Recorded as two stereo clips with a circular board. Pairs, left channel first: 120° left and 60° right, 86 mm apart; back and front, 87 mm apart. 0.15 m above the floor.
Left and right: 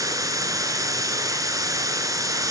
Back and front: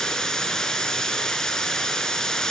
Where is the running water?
100° right, 0.9 m.